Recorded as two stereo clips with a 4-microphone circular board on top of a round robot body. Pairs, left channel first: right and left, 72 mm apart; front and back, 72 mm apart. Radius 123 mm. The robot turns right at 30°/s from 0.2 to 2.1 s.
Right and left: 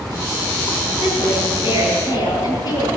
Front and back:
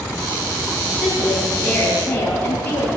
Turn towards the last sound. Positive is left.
turn(degrees=-65)